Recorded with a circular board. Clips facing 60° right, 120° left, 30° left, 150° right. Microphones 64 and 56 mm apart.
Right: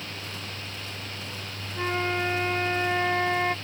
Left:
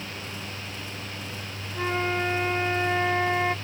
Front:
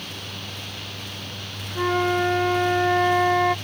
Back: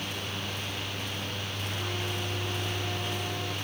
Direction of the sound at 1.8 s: 30° left.